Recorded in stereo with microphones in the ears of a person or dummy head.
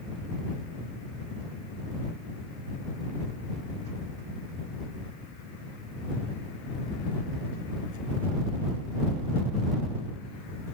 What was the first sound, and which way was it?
Only background noise.